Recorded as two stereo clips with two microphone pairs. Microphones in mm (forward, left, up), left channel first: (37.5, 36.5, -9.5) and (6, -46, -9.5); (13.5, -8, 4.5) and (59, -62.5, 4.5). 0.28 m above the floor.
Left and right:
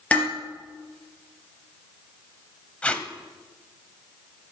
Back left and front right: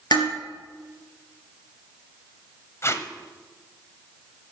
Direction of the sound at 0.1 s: 145° left.